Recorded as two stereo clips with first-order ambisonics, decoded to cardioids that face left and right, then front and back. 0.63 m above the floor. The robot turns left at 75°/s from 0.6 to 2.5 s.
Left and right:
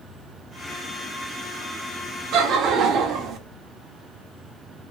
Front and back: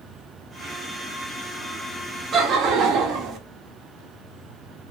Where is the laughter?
125° right, 1.2 m; by 3.4 s 135° right, 1.2 m.